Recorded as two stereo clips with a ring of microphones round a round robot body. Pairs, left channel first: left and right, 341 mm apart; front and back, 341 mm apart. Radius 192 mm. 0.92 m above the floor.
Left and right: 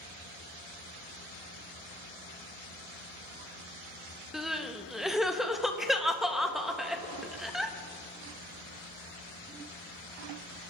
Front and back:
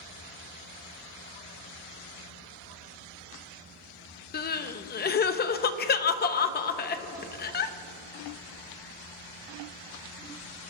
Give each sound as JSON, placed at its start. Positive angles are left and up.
{"t": 4.3, "sound": "crying", "azimuth_deg": 0, "distance_m": 0.6}